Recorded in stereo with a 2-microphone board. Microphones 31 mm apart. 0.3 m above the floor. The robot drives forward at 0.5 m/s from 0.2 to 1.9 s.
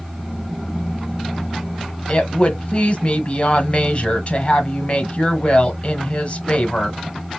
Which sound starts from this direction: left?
A woman speaking, at 2.1 s.